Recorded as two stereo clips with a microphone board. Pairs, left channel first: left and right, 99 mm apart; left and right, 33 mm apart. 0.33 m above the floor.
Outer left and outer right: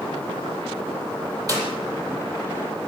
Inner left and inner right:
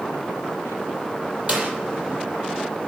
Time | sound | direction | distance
1.5 | a clap | 35° right (ahead or behind) | 8 m